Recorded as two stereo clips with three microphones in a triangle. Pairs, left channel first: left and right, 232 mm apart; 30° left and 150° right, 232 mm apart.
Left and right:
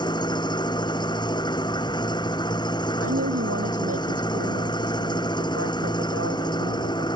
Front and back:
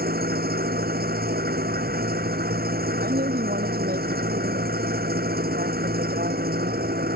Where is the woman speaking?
100° right.